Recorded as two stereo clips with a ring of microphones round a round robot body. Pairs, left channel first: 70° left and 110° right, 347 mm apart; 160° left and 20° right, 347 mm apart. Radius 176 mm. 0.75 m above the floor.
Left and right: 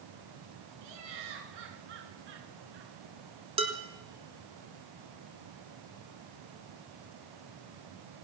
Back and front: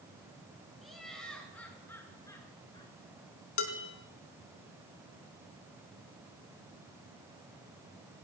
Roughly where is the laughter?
Behind right.